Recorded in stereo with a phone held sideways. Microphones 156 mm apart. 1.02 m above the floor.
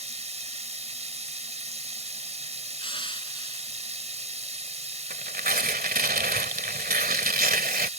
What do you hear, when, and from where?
0.0 s running water: 40° right (ahead or behind)
2.8 s crushing: 30° left (ahead or behind)
5.1 s tearing paper: 65° right (ahead or behind)